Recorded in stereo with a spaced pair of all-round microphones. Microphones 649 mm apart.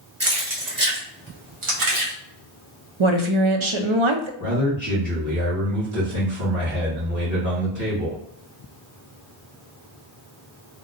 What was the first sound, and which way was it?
Keys jangling, 20° right (ahead or behind).